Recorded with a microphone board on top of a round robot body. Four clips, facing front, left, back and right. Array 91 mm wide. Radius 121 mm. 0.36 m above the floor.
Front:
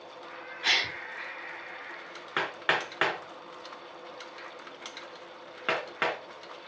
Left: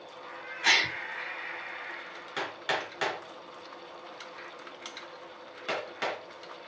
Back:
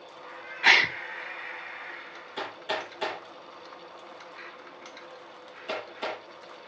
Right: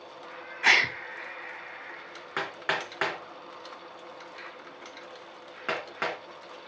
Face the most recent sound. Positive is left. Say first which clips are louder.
# right 2 dB, front 5 dB
turn(degrees=-30)